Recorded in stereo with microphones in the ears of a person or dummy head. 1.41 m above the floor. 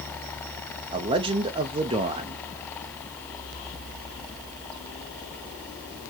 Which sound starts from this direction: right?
A man speaking, at 0.9 s.